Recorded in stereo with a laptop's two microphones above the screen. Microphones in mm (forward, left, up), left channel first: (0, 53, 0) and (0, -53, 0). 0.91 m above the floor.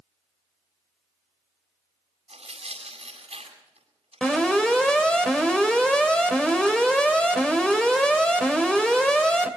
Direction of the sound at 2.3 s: 75° right (ahead or behind).